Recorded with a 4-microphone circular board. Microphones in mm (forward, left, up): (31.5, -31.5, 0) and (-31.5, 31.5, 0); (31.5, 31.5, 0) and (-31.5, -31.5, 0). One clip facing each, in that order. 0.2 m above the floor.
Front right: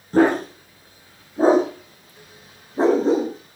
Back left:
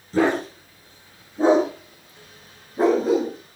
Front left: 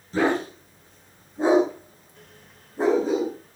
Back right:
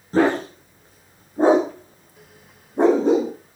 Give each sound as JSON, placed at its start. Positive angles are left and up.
{"t": 0.1, "sound": "a dog barking", "azimuth_deg": -90, "distance_m": 8.0}